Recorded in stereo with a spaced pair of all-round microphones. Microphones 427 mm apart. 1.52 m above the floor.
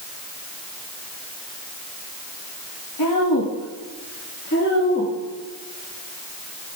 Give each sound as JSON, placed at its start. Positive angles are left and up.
{"t": 3.0, "sound": "a woman speaking", "side_deg": 55, "distance_m": 1.9}